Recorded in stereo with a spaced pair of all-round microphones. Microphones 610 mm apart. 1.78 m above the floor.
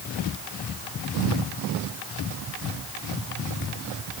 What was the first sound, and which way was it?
Only background noise.